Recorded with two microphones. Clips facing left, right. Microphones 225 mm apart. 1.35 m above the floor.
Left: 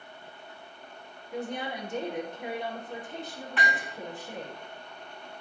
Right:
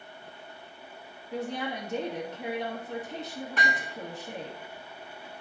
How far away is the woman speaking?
About 3 m.